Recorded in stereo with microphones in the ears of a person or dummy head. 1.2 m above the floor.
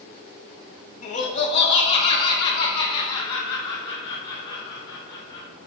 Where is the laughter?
40° left (ahead or behind), 1.4 m; by 5.5 s 20° left (ahead or behind), 4 m.